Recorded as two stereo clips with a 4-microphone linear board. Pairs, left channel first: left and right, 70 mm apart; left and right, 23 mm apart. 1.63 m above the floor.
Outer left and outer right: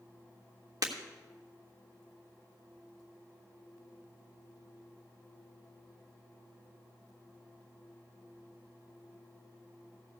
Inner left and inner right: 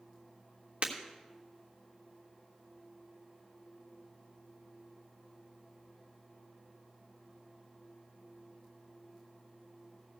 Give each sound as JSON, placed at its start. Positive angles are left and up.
{"t": 0.8, "sound": "breaking glass", "side_deg": -60, "distance_m": 1.5}